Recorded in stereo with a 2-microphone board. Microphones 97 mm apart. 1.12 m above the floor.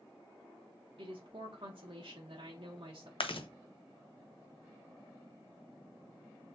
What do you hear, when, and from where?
1.0 s a woman speaking: 70° right (ahead or behind), 0.8 m
3.2 s chewing: 65° left (ahead or behind), 0.5 m